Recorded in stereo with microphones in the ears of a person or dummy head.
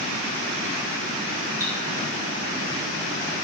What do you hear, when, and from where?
1.6 s cutlery clinking: 15° right (ahead or behind), 2.5 m